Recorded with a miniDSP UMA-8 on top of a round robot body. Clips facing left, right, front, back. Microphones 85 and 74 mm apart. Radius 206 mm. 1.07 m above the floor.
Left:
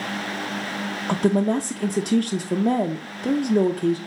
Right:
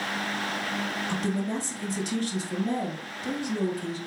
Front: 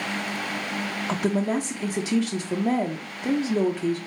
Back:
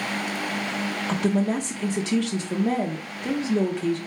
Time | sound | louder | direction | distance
1.1 | a woman speaking | left 11 dB, back 1 dB | 80° left | 0.6 m